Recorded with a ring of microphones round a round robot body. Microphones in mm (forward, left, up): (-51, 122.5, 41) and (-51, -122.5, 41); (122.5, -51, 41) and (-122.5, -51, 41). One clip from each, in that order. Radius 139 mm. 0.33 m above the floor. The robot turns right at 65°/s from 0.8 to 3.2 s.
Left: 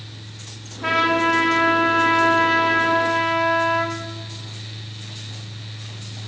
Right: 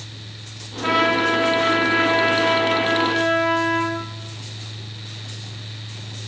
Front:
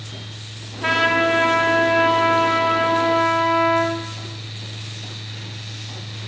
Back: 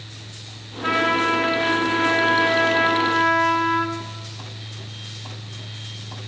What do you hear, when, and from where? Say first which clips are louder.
0.8 s a trumpet: even, front 2 dB; 10° left, 1.2 m; by 4.0 s 165° left, 1.2 m